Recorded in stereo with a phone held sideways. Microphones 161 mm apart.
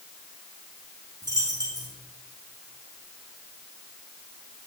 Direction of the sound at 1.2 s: 25° right (ahead or behind).